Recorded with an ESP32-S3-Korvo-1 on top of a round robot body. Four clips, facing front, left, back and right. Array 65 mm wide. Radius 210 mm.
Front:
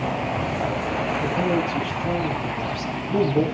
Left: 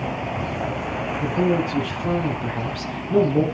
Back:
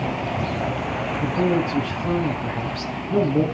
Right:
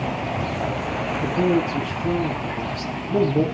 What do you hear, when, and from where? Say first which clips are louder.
1.2 s a man speaking: right 1 dB, back 4 dB; 130° left, 8.5 m